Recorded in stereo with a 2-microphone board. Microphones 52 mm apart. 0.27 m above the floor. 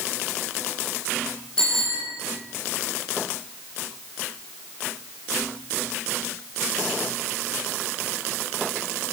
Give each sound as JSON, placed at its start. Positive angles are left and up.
{"t": 1.6, "sound": "a bicycle bell", "side_deg": 15, "distance_m": 8.0}